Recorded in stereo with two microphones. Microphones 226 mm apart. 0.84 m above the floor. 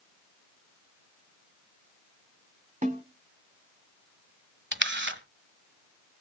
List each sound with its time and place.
2.8 s a snare drum: 35° right (ahead or behind), 2.5 m
4.7 s a camera shutter: 55° right (ahead or behind), 1.3 m